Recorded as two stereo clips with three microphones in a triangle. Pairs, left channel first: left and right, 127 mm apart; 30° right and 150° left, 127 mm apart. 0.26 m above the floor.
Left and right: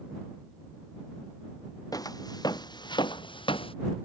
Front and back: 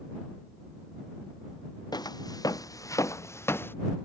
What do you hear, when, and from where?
1.9 s footsteps: 30° left; by 3.8 s 45° left